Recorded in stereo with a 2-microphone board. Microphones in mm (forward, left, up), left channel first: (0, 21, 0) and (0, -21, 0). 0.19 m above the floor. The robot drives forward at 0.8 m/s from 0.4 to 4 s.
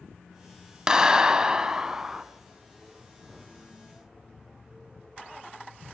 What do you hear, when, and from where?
0.9 s a clap: 15° right (ahead or behind), 0.8 m; by 2.2 s 10° right (ahead or behind), 1.1 m